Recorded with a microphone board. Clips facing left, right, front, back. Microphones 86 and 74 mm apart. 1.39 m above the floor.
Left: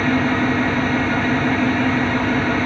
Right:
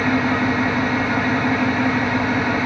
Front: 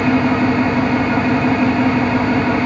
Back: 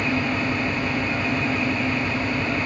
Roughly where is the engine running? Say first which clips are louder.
Left 1 dB, front 9 dB; ahead.